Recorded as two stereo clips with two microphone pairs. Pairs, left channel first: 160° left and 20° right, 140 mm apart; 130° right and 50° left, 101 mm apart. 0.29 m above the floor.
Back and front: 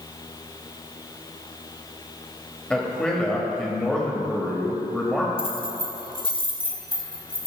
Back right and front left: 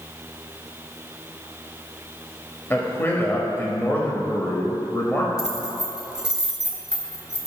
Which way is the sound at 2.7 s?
125° right.